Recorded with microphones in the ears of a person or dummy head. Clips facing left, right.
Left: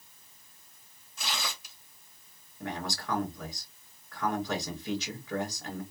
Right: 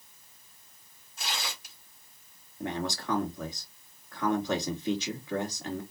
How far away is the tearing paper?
About 2.0 m.